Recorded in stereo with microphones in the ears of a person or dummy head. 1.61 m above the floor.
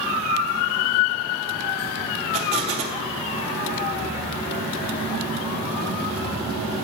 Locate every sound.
2.3 s an explosion: 35° right (ahead or behind), 0.8 m